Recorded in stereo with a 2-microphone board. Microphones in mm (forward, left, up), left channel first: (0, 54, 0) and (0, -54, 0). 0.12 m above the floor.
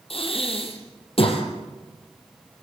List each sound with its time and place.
0.1 s breathing: 65° left (ahead or behind), 4 m